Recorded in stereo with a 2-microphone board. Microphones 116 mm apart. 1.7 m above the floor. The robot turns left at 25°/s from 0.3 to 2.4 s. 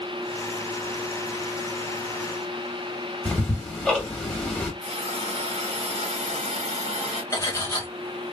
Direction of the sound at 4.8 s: 60° right (ahead or behind).